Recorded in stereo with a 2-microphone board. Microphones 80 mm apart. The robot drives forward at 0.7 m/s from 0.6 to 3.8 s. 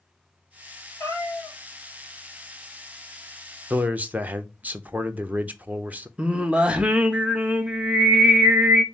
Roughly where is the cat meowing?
Left.